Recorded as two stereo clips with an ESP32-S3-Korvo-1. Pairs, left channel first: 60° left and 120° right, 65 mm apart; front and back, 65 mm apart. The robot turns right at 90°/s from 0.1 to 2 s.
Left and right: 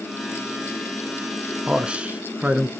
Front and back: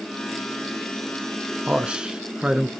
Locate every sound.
1.7 s a man speaking: 170° right, 1.1 m; by 2.7 s 140° right, 1.1 m